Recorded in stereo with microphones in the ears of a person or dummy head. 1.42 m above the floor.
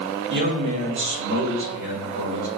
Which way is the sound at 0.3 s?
65° right (ahead or behind).